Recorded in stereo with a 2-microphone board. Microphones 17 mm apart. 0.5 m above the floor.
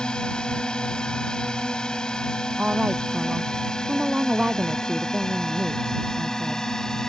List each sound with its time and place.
0.0 s a drone: 65° left (ahead or behind); by 7.1 s 35° left (ahead or behind)
2.6 s a woman speaking: 70° right (ahead or behind)